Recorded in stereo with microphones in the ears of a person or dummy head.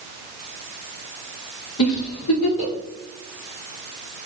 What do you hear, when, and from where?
1.8 s a giggle: 65° left (ahead or behind), 1.3 m